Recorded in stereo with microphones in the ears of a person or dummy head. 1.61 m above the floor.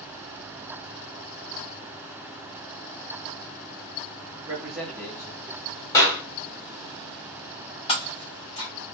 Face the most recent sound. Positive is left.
turn(degrees=25)  # may be behind; listen again after turning